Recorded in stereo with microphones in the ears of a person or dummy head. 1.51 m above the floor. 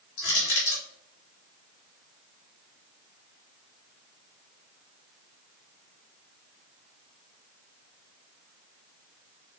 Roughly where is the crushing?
Left.